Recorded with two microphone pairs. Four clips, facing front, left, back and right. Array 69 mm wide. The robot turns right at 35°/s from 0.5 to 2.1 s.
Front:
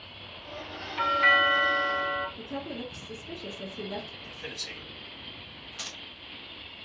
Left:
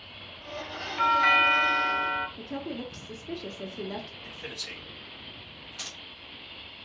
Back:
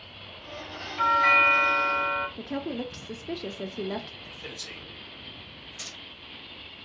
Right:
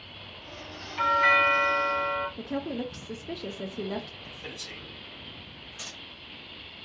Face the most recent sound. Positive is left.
turn(degrees=35)